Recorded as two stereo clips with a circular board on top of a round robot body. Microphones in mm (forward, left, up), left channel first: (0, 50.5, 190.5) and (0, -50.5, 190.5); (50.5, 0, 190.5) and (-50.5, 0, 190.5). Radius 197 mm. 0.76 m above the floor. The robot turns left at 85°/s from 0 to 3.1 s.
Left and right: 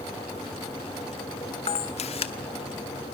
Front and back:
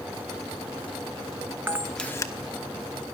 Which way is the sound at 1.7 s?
110° left.